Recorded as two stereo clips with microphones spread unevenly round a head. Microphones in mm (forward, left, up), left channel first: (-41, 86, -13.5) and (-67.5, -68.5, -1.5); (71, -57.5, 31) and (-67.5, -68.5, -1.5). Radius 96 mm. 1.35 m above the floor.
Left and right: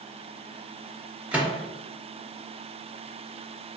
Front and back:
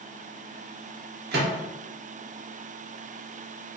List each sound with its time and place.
1.3 s a microwave: straight behind, 0.7 m